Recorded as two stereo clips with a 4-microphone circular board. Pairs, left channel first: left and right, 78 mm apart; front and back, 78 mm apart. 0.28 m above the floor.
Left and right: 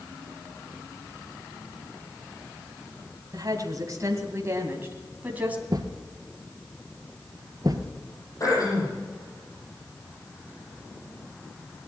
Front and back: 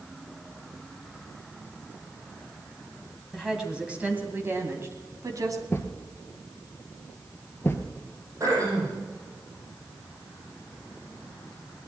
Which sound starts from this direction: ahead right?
A thud, at 5.7 s.